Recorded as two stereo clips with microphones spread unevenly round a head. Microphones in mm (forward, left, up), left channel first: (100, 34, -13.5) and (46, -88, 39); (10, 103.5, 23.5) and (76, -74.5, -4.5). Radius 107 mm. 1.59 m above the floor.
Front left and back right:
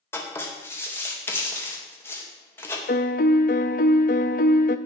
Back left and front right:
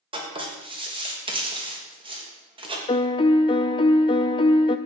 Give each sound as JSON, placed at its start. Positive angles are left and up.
{"t": 0.1, "sound": "writing", "azimuth_deg": -5, "distance_m": 2.5}
{"t": 2.9, "sound": "a piano", "azimuth_deg": 85, "distance_m": 0.5}